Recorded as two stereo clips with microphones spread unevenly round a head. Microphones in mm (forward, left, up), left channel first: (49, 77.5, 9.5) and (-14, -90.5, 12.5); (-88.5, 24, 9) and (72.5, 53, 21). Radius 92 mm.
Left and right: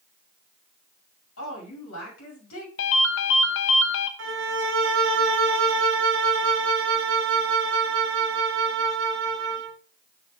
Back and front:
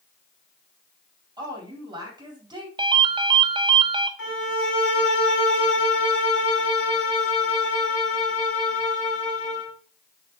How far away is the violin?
About 2 m.